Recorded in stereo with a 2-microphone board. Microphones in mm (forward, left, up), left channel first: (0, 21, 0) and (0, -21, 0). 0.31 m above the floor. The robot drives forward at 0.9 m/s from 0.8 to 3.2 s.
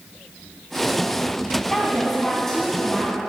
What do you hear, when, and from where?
1.7 s a woman speaking: 10° left (ahead or behind), 3 m; by 3.2 s 5° left (ahead or behind), 4 m